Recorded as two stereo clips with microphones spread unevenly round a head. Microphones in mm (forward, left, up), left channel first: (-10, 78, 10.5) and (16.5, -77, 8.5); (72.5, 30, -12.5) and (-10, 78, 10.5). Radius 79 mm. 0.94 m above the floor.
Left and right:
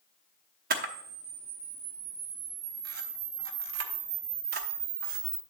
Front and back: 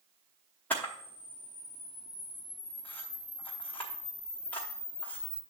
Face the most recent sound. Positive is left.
turn(degrees=-115)